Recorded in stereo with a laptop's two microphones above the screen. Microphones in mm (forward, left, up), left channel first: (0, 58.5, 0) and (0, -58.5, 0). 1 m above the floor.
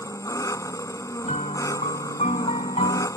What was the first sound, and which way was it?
An engine running, 30° left (ahead or behind).